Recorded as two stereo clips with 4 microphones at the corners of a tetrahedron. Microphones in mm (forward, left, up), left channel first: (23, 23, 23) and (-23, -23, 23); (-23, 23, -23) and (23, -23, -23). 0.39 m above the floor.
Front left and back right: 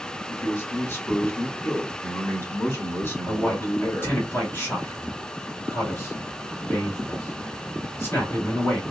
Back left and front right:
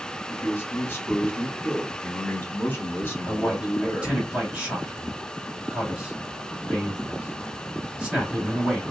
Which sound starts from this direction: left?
A man speaking, at 0.3 s.